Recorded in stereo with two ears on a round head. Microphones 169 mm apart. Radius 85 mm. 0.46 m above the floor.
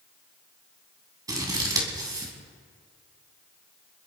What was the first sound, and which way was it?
Scissors, 20° right (ahead or behind).